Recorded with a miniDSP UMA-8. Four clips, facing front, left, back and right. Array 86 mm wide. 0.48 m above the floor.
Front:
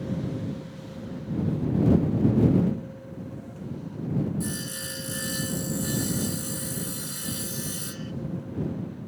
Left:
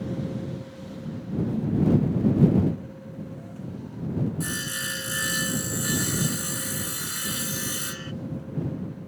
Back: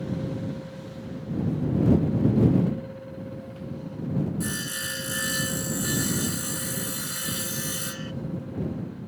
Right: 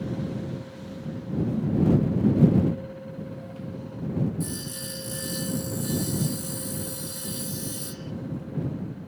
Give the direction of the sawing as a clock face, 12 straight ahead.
8 o'clock.